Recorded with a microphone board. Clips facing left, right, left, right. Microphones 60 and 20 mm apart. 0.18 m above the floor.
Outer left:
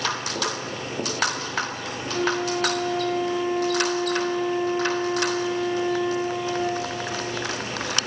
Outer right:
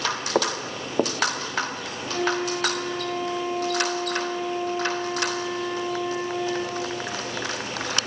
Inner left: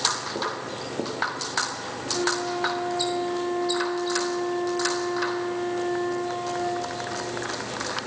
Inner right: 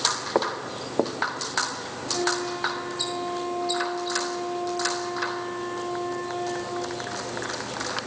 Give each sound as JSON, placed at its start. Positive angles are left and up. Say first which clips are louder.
{"t": 0.3, "sound": "footsteps", "louder": "outer right 4 dB, inner right 3 dB", "side_deg": -80, "distance_m": 0.9}
{"t": 2.1, "sound": "a flute", "louder": "outer left 1 dB, even", "side_deg": -15, "distance_m": 4.0}